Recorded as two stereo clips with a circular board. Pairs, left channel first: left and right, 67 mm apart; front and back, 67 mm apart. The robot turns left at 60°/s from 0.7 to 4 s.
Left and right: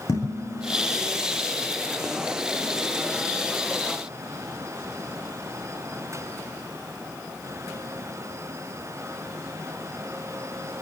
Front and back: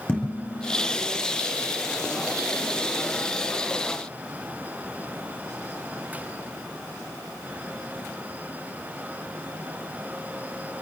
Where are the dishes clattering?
65° left, 9.5 m; by 0.9 s 55° left, 9.5 m.